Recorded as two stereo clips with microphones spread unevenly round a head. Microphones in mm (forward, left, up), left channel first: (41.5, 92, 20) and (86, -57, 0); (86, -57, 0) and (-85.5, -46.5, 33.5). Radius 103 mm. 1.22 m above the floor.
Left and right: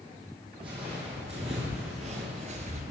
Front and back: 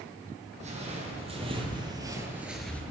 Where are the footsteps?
140° right, 3.5 m; by 2.8 s 95° right, 1.4 m.